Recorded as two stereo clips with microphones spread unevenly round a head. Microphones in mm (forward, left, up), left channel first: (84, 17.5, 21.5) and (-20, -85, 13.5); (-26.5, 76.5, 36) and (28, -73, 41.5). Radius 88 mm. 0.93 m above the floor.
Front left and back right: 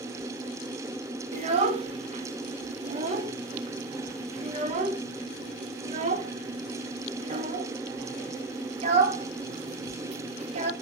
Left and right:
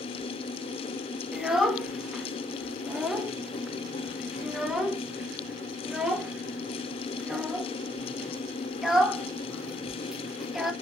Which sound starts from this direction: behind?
A child speaking, at 1.3 s.